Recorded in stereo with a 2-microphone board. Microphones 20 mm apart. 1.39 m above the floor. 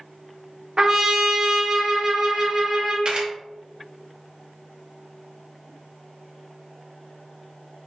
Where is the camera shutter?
55° right (ahead or behind), 1.0 m.